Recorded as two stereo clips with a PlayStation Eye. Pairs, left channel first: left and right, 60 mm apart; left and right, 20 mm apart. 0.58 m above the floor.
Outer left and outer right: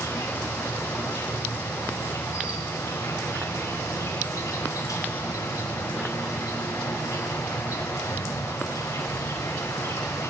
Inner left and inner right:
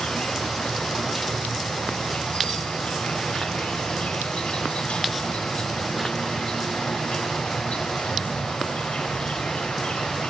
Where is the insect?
70° left (ahead or behind), 4.5 m.